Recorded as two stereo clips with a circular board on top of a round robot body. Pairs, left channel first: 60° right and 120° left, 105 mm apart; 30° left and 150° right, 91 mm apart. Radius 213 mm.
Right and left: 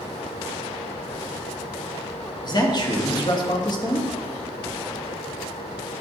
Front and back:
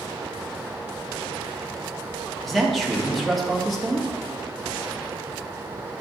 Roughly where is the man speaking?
Ahead right.